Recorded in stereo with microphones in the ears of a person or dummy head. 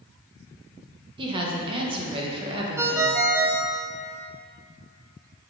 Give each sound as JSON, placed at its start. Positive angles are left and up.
{"t": 1.2, "sound": "a woman speaking", "side_deg": -30, "distance_m": 1.2}
{"t": 2.8, "sound": "a ringtone", "side_deg": -15, "distance_m": 0.6}